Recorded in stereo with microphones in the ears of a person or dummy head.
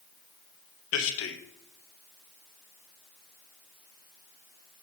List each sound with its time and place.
0.9 s a man speaking: 75° left (ahead or behind), 1.0 m